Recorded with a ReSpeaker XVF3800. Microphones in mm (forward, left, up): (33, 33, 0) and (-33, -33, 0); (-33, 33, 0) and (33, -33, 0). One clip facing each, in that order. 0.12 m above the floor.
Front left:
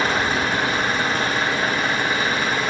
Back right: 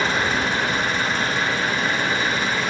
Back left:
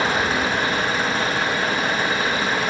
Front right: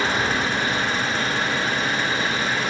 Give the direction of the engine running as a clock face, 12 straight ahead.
9 o'clock.